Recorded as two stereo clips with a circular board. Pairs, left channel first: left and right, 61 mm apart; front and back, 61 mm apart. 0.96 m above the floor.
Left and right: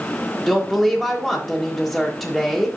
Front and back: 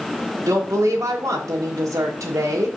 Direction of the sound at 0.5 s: 175° right.